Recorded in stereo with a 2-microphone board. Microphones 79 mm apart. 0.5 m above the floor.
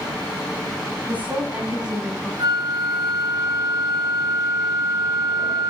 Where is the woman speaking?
20° right (ahead or behind), 5 m; by 2.3 s 5° right (ahead or behind), 4.5 m.